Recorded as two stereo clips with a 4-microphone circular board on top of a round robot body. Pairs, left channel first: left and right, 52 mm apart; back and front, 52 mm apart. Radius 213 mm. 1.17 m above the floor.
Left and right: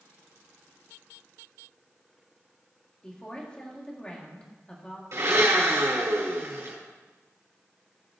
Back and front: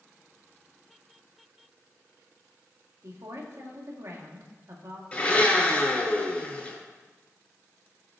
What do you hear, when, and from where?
3.0 s a woman speaking: 20° left, 2.5 m
5.1 s a blender: 115° right, 5 m